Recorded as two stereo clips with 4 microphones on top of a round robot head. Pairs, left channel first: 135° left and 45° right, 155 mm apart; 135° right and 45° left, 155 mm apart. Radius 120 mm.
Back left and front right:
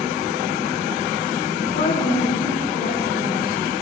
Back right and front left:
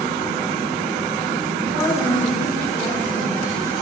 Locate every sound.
1.6 s a woman speaking: 160° left, 6 m